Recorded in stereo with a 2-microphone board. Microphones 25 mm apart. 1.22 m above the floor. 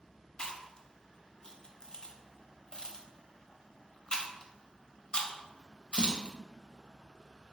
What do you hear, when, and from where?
0.4 s chewing: 35° left (ahead or behind), 0.5 m